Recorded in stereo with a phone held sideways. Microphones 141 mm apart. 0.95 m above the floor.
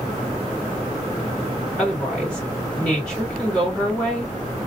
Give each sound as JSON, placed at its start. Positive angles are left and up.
{"t": 1.8, "sound": "a woman speaking", "side_deg": 0, "distance_m": 1.6}